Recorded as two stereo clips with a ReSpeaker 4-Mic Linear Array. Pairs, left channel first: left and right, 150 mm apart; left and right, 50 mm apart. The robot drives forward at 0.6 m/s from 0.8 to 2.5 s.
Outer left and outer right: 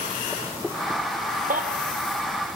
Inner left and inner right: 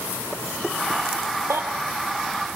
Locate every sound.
1.5 s a baby crying: 65° right (ahead or behind), 2.0 m; by 1.6 s 60° right (ahead or behind), 2.0 m